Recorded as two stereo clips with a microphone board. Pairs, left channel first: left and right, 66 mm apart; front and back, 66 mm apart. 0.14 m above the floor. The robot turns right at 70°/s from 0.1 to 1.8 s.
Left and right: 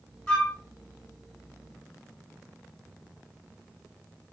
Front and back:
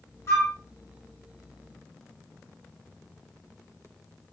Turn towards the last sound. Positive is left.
turn(degrees=120)